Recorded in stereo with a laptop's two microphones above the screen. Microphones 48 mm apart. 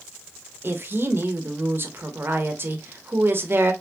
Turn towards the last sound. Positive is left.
turn(degrees=-50)  # may be behind; listen again after turning